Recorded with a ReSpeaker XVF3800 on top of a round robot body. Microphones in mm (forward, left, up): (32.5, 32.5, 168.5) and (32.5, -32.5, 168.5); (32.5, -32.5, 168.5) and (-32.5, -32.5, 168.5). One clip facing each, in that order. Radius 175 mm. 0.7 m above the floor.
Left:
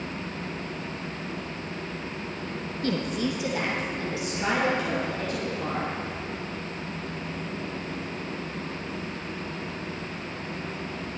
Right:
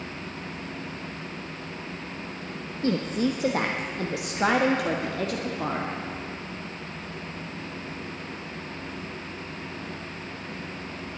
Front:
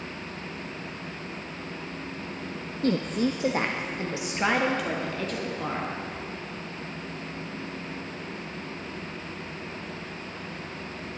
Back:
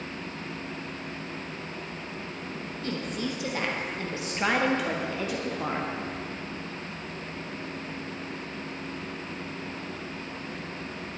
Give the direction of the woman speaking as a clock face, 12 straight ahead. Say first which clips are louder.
Right 3 dB, front 8 dB; 1 o'clock.